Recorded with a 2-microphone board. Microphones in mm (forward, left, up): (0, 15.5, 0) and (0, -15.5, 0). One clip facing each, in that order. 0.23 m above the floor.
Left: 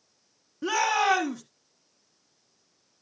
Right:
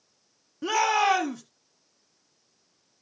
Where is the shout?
10° right (ahead or behind), 1.5 m.